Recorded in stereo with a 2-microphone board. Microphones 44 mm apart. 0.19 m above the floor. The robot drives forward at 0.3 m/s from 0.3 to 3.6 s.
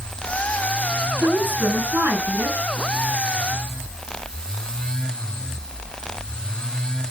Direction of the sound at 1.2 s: 55° right (ahead or behind).